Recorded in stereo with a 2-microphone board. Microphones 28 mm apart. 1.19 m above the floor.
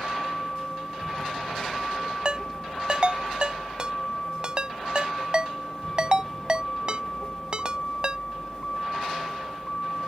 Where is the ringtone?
30° right (ahead or behind).